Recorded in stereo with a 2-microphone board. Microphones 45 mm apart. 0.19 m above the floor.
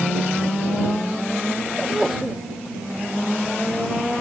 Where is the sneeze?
5° right (ahead or behind).